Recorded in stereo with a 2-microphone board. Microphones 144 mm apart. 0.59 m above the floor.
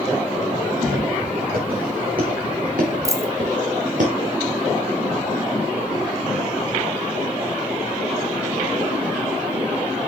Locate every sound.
0.8 s footsteps: 85° right, 5 m; by 4.0 s 65° right (ahead or behind), 3.5 m
3.0 s a dropped coin: 20° right (ahead or behind), 1.0 m